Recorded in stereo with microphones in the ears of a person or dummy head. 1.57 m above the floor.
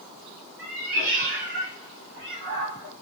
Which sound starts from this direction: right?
A cat meowing, at 0.6 s.